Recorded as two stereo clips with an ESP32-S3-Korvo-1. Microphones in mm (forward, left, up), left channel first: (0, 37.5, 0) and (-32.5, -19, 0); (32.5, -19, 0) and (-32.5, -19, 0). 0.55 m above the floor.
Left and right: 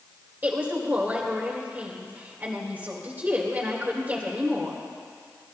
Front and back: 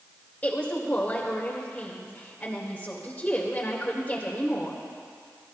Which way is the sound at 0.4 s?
65° right.